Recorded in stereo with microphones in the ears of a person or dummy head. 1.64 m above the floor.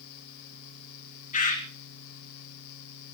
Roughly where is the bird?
Left.